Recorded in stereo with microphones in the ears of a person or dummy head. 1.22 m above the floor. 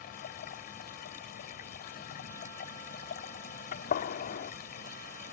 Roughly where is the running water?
Left.